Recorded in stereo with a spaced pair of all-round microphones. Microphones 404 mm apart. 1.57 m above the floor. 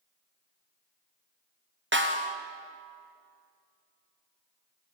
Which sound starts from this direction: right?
A snare drum, at 1.9 s.